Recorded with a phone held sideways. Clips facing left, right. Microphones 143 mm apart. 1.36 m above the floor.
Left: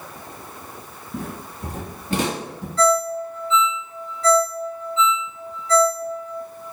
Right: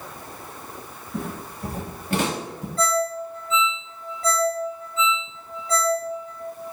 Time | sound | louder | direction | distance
1.1 | footsteps | even | 25° left (ahead or behind) | 1.6 m
2.8 | a ringtone | left 5 dB | 40° right (ahead or behind) | 1.3 m